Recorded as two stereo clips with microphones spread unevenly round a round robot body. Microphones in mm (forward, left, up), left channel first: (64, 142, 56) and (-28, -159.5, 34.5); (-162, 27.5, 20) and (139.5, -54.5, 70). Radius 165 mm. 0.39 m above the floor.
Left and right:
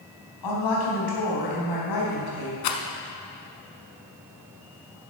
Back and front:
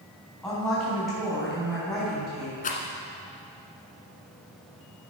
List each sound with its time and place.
0.4 s a woman speaking: 80° left, 4 m
2.6 s a rattle: 95° left, 1.2 m